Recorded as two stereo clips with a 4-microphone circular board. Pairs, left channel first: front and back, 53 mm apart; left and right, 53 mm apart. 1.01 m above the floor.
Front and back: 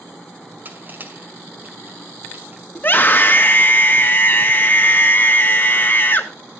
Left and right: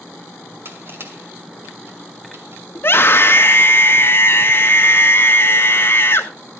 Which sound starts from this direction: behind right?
Crushing, at 0.7 s.